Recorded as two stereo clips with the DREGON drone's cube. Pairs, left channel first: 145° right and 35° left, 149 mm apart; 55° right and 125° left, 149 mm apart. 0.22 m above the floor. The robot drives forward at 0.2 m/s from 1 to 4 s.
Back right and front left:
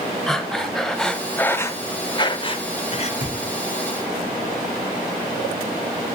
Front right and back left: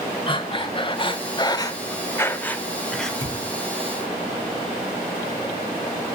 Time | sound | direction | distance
0.3 | breathing | 60° right | 0.5 m
3.2 | a thud | 95° right | 5.5 m